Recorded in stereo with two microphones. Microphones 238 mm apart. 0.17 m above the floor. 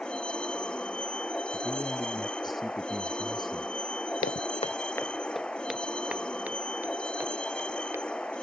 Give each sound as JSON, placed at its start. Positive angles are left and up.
{"t": 0.0, "sound": "a vehicle", "side_deg": 5}
{"t": 1.5, "sound": "a man speaking", "side_deg": 0}
{"t": 4.2, "sound": "footsteps", "side_deg": 65}